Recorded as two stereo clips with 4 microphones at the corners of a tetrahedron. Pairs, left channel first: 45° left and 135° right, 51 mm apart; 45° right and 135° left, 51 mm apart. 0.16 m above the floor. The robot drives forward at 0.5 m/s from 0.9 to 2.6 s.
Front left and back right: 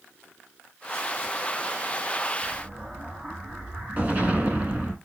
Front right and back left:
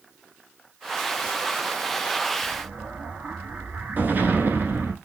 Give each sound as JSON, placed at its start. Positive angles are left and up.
{"t": 2.4, "sound": "an explosion", "azimuth_deg": 170, "distance_m": 0.8}